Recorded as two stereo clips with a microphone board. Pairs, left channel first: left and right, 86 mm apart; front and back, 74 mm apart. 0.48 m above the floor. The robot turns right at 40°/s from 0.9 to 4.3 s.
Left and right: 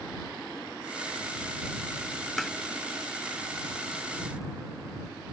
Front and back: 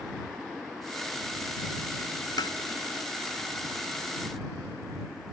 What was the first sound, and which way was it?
Tapping, straight ahead.